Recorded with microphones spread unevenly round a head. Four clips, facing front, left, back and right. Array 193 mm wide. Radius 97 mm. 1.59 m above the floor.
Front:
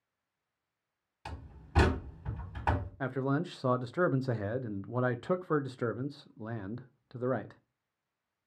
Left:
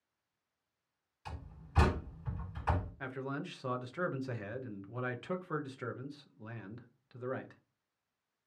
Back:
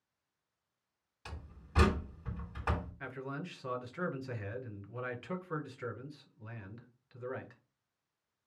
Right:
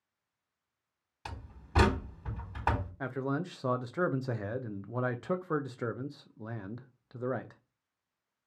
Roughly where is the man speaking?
Ahead right.